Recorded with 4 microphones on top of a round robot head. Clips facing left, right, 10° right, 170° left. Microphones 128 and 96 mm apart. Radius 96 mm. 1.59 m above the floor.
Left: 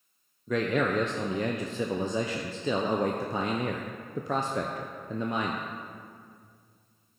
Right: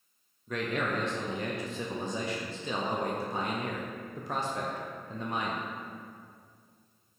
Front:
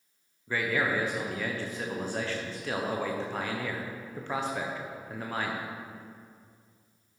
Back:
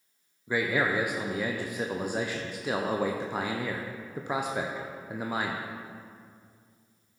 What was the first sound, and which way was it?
A man speaking, 95° left.